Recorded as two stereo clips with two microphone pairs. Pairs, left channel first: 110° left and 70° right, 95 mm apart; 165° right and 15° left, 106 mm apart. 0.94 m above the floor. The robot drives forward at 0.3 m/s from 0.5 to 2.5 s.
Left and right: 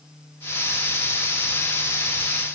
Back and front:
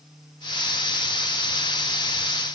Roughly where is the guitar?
I don't hear a guitar.